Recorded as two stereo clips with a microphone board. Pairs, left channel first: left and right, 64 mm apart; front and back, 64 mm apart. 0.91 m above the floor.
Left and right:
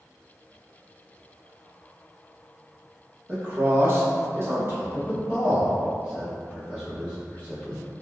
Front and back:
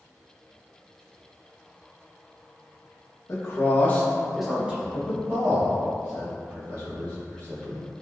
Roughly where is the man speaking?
Ahead right.